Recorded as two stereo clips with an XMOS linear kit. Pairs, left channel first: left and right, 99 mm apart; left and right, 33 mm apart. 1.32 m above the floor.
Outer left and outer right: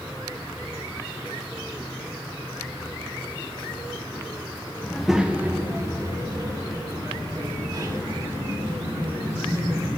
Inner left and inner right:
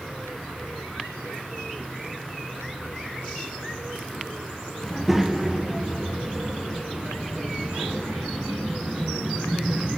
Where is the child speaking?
10° left (ahead or behind), 0.5 m; by 9.9 s 50° right (ahead or behind), 3.5 m.